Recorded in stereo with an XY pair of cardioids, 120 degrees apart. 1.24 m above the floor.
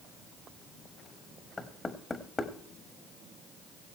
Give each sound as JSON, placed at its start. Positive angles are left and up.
{"t": 1.6, "sound": "knocking", "azimuth_deg": 25, "distance_m": 1.3}